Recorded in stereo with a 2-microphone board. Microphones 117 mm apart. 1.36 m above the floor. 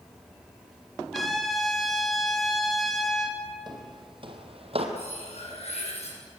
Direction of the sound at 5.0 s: 65° left (ahead or behind).